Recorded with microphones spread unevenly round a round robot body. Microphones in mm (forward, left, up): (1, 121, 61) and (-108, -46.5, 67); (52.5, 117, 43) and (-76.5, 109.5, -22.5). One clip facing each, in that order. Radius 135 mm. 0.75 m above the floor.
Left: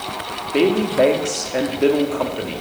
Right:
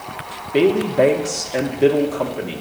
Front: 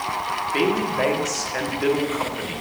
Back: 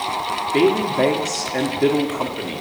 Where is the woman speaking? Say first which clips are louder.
Right 1 dB, back 5 dB; 150° left, 1.6 m.